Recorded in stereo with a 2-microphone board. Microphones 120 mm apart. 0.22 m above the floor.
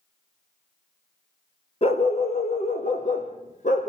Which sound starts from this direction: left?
A dog barking, at 1.8 s.